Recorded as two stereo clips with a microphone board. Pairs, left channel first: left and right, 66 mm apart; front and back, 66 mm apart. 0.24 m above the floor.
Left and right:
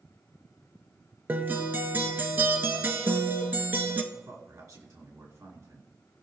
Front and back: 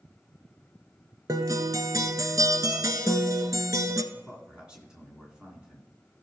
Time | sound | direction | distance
1.3 | a guitar | 150° right | 1.0 m
4.1 | a man speaking | 105° right | 3 m